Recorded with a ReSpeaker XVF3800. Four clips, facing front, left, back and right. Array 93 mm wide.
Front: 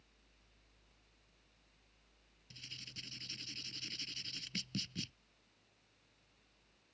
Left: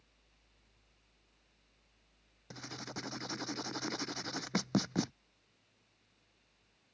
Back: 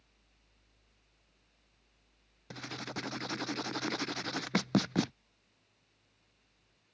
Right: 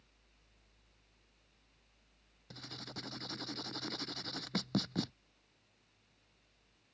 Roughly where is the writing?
Behind.